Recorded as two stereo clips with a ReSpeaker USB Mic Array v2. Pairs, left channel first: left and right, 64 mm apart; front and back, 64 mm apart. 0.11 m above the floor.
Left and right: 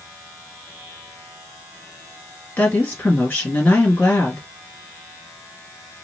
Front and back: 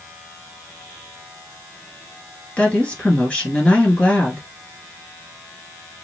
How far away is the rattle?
No rattle in this recording.